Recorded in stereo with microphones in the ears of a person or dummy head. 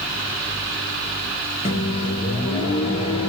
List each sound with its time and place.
1.6 s a microwave: 35° left (ahead or behind), 0.9 m